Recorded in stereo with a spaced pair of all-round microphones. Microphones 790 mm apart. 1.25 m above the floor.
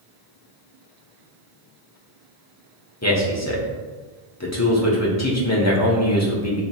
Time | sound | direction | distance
3.0 | a man speaking | 20° left (ahead or behind) | 0.8 m